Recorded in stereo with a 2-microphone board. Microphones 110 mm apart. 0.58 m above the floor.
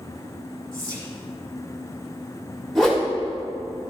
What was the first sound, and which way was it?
Whispering, 25° right (ahead or behind).